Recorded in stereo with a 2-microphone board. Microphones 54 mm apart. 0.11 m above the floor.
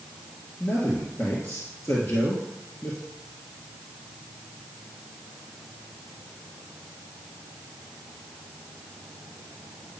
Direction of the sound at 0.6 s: 50° left (ahead or behind).